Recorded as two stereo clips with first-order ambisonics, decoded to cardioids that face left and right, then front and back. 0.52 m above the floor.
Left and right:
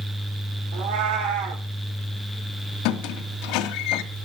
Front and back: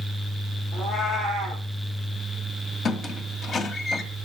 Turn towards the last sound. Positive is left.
turn(degrees=65)